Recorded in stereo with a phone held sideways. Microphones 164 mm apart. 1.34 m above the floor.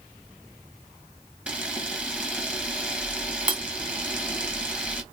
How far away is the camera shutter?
About 1.0 m.